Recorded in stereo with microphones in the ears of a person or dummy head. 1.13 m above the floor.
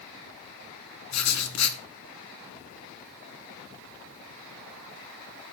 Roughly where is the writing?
Left.